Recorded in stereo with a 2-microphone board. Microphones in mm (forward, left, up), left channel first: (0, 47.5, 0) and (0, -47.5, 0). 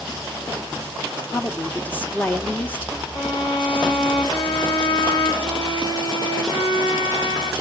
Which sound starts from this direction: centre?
A woman speaking, at 1.3 s.